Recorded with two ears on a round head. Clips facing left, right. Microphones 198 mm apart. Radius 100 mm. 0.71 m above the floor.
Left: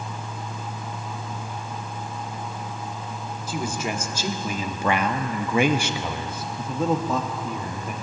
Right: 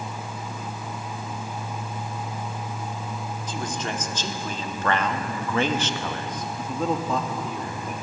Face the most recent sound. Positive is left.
turn(degrees=0)  # may be behind; listen again after turning